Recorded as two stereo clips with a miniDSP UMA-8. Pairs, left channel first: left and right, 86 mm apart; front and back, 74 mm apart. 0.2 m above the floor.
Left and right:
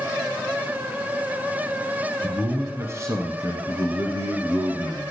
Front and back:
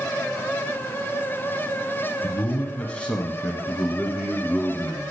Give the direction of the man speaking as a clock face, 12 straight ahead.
1 o'clock.